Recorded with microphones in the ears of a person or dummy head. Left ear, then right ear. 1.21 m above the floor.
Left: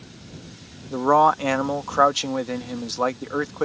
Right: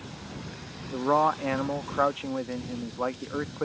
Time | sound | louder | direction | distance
0.9 | a man speaking | left 7 dB | 80° left | ?